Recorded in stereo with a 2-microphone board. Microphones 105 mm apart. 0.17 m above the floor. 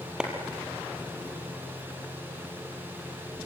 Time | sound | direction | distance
0.2 | a clap | 5° right (ahead or behind) | 3.5 m